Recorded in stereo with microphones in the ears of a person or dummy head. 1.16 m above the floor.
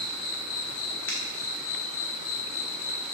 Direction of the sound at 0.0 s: 60° left (ahead or behind).